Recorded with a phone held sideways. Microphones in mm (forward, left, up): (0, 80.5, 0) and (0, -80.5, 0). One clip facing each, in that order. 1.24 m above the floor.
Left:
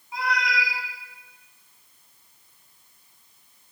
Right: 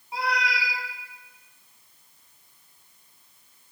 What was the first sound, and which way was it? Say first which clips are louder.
A cat meowing: left 1 dB; 35° right (ahead or behind).